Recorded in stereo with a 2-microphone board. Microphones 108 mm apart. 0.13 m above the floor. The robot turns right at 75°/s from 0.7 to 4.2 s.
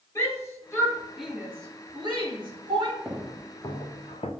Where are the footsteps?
10° right (ahead or behind), 2.0 m; by 4.3 s 70° left (ahead or behind), 1.3 m.